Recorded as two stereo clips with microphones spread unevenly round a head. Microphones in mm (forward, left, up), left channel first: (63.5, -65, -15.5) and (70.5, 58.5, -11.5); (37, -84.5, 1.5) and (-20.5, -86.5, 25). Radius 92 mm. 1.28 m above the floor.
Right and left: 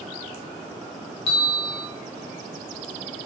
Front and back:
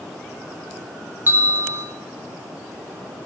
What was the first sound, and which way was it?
A bell, 115° right.